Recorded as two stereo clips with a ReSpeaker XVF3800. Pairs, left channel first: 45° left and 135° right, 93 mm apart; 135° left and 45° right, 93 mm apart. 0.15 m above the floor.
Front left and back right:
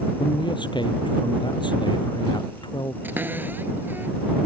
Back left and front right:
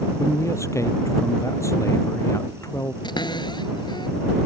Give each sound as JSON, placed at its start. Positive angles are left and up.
{"t": 0.2, "sound": "a man speaking", "azimuth_deg": 80}
{"t": 3.0, "sound": "a cupboard door", "azimuth_deg": 160}